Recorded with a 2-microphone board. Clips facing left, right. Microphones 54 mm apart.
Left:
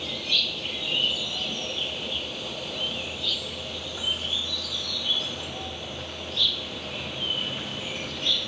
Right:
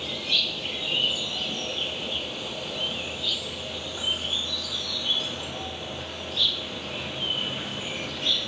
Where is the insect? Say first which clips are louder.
Even; centre (ahead or behind), 1.8 m.